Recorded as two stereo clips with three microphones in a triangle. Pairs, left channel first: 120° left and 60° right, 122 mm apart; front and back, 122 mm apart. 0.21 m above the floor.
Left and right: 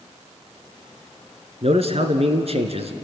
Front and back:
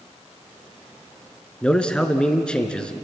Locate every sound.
1.6 s a man speaking: 80° right, 2.5 m